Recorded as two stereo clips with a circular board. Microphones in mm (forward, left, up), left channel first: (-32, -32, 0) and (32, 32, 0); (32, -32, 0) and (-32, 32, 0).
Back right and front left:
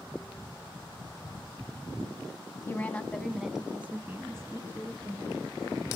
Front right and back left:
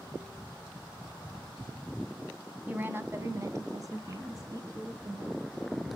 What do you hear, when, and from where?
2.7 s a woman speaking: 175° right, 1.5 m; by 5.4 s 90° left, 3 m